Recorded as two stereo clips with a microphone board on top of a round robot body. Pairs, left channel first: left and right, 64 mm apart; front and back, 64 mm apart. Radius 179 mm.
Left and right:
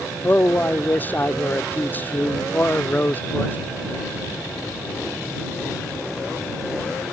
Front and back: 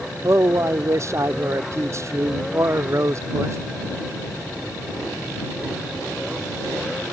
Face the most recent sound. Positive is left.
turn(degrees=145)